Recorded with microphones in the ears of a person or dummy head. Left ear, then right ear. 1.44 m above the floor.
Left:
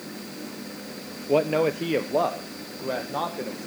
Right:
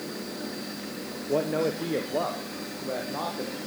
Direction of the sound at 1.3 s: 40° left (ahead or behind).